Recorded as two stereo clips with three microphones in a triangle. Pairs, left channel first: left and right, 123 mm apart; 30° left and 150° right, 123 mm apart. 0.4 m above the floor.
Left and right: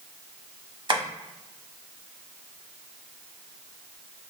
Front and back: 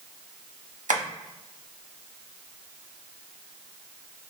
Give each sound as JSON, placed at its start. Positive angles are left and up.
{"t": 0.9, "sound": "tapping", "azimuth_deg": -145, "distance_m": 0.6}